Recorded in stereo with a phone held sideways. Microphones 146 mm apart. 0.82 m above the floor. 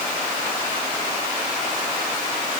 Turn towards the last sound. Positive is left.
No sound to turn to.